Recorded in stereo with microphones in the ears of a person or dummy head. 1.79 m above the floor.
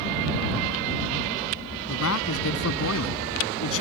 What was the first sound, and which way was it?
A man speaking, 75° left (ahead or behind).